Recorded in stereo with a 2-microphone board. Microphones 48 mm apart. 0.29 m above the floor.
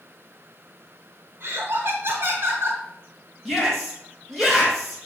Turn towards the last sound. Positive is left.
turn(degrees=0)  # may be behind; listen again after turning